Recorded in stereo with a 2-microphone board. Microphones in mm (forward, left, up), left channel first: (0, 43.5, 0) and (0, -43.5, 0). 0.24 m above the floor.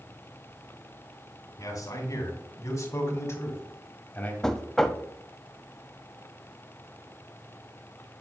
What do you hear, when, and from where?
1.6 s a man speaking: 45° left (ahead or behind), 3 m; by 4.3 s 20° left (ahead or behind), 1.7 m
4.4 s knocking: 5° left (ahead or behind), 0.7 m